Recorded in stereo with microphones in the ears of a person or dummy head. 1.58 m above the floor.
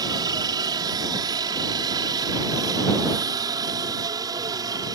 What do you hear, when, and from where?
0.0 s a helicopter: 20° right (ahead or behind)